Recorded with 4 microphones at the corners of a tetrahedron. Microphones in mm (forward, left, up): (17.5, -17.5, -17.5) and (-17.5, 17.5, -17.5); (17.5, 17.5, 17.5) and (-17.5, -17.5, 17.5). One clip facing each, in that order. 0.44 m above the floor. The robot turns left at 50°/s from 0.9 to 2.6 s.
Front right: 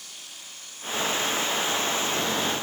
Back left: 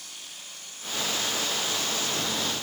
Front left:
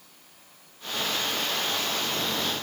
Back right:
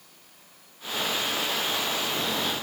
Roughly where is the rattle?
No rattle in this recording.